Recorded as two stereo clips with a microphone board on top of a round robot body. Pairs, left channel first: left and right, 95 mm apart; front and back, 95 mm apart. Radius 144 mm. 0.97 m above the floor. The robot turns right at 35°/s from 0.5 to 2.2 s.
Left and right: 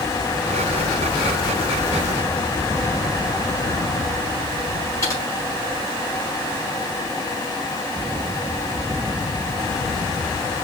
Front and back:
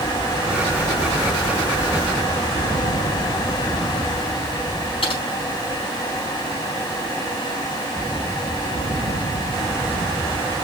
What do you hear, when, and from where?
5.0 s typing on a keyboard: 30° left, 4 m